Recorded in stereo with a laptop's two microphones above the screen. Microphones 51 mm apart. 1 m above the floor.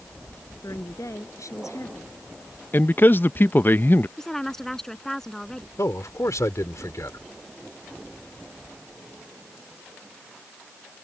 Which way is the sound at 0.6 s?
85° left.